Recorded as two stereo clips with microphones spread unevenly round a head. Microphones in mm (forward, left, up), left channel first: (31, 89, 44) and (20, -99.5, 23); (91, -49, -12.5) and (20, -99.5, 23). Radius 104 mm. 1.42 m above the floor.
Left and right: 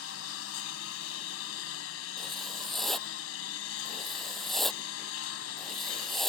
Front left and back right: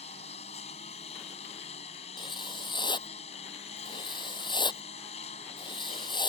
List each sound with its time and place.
0.0 s a lawn mower: 90° left
2.2 s writing: straight ahead